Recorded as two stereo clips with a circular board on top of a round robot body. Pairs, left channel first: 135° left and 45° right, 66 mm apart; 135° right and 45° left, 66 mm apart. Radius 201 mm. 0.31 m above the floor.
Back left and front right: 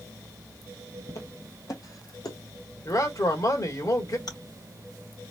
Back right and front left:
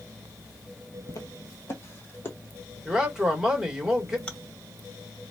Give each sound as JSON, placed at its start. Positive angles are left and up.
{"t": 1.1, "sound": "footsteps", "azimuth_deg": 180, "distance_m": 0.9}
{"t": 2.9, "sound": "a man speaking", "azimuth_deg": 125, "distance_m": 2.5}
{"t": 4.3, "sound": "chewing", "azimuth_deg": 150, "distance_m": 2.5}